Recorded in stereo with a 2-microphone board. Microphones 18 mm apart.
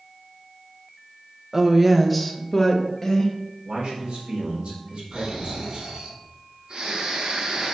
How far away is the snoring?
About 3.5 m.